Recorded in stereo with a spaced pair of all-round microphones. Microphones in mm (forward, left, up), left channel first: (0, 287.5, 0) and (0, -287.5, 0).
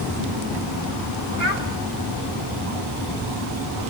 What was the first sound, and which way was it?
A child speaking, 55° left (ahead or behind).